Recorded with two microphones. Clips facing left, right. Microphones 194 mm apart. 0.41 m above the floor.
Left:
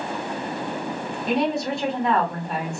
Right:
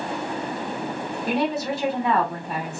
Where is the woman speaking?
5° right (ahead or behind), 1.0 m.